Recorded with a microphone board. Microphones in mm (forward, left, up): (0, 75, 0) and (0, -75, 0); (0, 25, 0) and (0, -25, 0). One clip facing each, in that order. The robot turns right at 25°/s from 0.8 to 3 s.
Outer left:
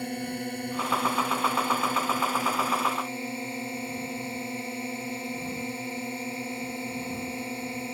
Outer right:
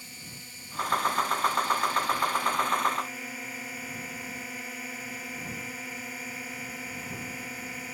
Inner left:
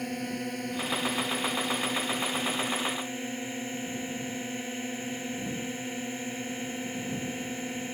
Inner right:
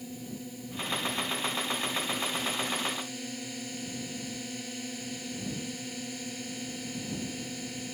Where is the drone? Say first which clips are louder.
Outer left 18 dB, inner left 8 dB; 95° left; by 7.9 s 150° left.